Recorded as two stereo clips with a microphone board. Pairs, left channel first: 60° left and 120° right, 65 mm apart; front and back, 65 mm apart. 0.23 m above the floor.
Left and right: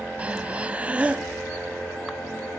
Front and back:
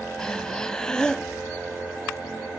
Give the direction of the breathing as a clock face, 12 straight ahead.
2 o'clock.